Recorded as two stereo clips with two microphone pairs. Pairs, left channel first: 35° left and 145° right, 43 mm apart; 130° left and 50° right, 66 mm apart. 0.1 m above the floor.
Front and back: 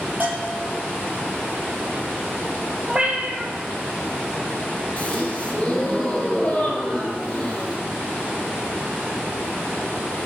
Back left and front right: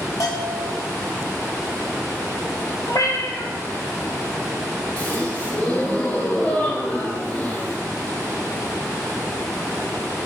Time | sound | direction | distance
0.2 | a bell | 160° left | 2.5 m
2.9 | a cat meowing | 155° left | 1.1 m
5.0 | a gasp | 80° left | 1.7 m